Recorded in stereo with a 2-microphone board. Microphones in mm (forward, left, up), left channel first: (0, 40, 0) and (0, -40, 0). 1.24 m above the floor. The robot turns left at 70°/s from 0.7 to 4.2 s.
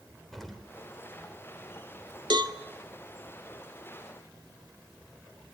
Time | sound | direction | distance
0.3 | an explosion | 5° left (ahead or behind) | 3.5 m
2.3 | a cowbell | 65° right (ahead or behind) | 1.6 m